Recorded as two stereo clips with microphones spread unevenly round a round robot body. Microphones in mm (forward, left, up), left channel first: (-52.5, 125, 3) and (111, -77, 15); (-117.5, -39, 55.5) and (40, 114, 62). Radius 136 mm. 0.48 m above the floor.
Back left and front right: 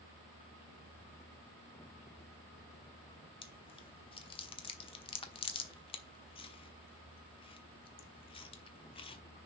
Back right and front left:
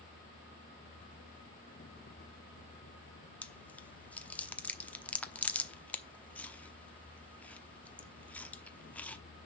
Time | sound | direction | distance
3.4 | chewing | 150° left | 1.0 m